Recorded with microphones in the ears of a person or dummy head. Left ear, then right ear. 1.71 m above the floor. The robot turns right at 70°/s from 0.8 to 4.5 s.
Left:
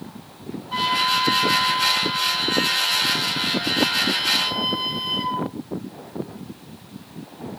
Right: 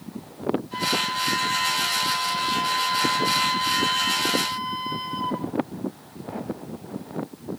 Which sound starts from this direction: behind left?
A flute, at 0.7 s.